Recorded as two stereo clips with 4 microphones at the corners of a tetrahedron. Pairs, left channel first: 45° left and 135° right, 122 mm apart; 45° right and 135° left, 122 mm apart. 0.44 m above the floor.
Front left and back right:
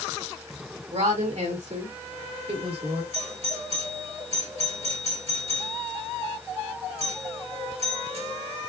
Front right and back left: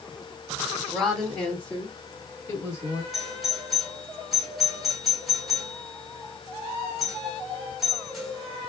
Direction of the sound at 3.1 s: 135° right.